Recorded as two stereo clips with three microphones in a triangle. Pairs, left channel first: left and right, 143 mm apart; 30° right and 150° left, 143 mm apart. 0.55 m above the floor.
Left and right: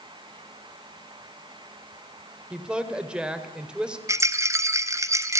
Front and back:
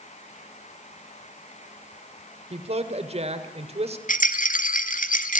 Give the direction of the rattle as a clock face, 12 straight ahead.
1 o'clock.